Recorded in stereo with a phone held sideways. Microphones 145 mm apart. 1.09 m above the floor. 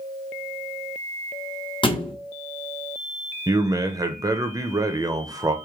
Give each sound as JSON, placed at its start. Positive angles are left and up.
{"t": 1.8, "sound": "a thud", "side_deg": 35, "distance_m": 0.7}
{"t": 3.5, "sound": "a man speaking", "side_deg": -25, "distance_m": 0.6}